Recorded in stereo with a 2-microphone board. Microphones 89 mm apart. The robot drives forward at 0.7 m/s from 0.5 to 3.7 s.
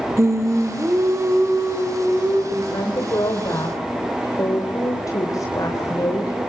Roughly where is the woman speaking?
Left.